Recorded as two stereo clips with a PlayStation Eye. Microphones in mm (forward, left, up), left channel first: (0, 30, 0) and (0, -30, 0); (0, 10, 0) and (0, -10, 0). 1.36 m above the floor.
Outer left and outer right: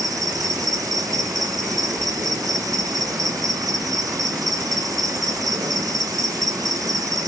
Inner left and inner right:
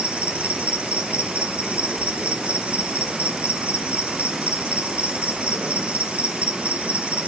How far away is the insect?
About 0.9 m.